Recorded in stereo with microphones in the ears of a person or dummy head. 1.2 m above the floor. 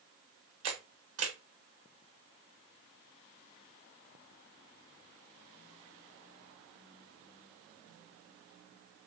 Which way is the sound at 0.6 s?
70° right (ahead or behind).